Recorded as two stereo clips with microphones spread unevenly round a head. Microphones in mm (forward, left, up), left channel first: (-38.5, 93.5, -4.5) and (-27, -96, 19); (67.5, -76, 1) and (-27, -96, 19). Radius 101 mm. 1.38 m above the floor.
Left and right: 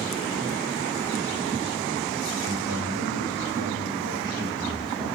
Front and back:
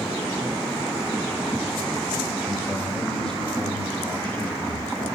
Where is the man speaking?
75° right, 3 m; by 5.0 s 40° right, 4.5 m.